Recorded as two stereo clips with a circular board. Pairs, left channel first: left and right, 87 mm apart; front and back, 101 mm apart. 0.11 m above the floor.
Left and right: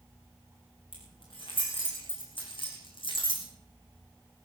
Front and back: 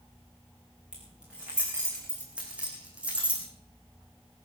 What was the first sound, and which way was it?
Keys jangling, 100° left.